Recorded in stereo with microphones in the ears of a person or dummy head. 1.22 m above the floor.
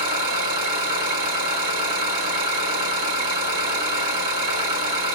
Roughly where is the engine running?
Right.